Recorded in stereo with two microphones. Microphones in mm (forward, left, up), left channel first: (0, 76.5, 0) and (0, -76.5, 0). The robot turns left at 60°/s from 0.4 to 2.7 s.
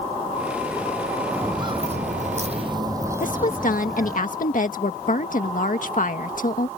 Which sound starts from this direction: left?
A woman speaking, at 3.2 s.